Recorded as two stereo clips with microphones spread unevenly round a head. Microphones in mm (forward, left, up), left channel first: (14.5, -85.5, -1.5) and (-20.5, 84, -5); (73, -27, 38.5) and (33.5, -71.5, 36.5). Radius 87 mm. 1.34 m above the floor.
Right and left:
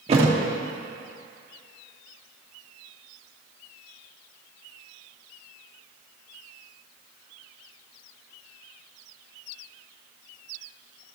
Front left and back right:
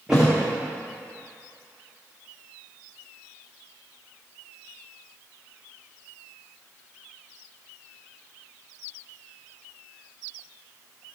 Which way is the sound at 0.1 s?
145° left.